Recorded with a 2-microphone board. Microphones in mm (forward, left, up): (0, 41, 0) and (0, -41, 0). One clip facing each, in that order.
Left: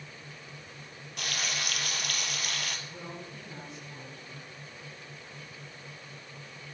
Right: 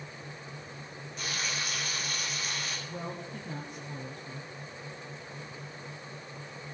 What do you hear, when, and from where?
1.2 s frying: 65° left (ahead or behind), 1.9 m
2.9 s a woman speaking: 40° right (ahead or behind), 2.5 m